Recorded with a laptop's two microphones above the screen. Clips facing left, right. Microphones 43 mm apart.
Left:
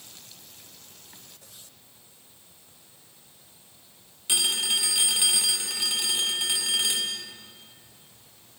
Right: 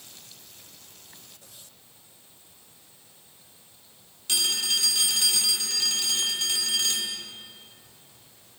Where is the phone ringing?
20° left (ahead or behind), 2.0 m.